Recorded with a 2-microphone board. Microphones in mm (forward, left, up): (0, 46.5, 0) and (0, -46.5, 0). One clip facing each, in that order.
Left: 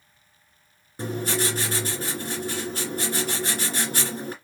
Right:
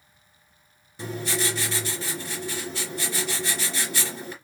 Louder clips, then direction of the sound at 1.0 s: Left 2 dB; 45° left (ahead or behind).